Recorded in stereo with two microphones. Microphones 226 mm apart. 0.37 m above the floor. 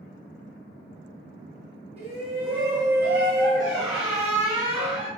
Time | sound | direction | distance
2.0 | a shout | 30° right (ahead or behind) | 1.8 m
3.6 | a squeak | 5° right (ahead or behind) | 1.8 m